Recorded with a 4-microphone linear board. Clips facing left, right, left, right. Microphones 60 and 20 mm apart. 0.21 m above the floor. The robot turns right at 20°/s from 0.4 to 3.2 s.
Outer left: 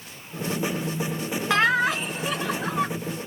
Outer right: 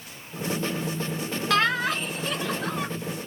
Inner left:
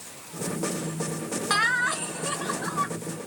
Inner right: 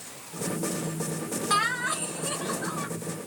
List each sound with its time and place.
1.5 s laughter: 20° left (ahead or behind), 1.0 m; by 2.9 s 10° left (ahead or behind), 1.0 m